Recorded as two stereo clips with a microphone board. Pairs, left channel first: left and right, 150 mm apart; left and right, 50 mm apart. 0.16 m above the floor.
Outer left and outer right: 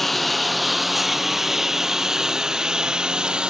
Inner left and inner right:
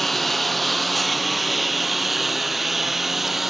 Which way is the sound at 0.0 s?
Centre (ahead or behind).